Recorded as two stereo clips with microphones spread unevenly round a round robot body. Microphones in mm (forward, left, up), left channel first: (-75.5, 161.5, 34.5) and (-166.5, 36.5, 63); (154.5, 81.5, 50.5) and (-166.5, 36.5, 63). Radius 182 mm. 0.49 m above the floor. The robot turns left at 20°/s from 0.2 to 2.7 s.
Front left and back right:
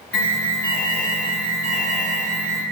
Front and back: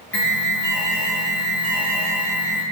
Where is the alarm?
75° left, 1.3 m; by 2.6 s 30° left, 1.3 m.